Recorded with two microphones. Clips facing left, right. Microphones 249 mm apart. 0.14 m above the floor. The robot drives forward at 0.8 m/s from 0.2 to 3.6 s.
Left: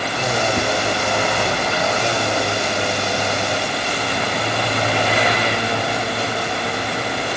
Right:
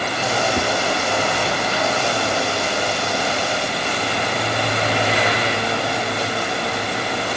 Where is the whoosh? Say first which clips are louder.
Even; 15° right (ahead or behind), 0.8 m.